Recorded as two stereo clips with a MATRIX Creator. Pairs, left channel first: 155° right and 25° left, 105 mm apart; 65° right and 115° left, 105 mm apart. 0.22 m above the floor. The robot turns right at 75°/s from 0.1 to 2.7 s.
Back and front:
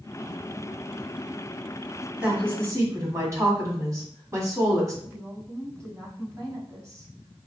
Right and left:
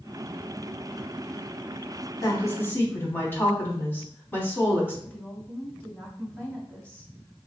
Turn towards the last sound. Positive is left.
turn(degrees=0)